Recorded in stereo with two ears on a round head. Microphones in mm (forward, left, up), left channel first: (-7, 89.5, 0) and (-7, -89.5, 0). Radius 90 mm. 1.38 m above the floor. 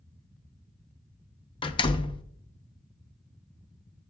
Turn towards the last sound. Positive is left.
turn(degrees=25)  # may be behind; listen again after turning